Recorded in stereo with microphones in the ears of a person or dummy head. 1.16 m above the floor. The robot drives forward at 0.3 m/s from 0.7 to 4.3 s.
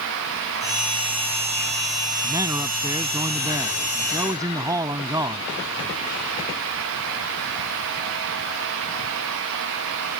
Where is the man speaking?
15° right (ahead or behind).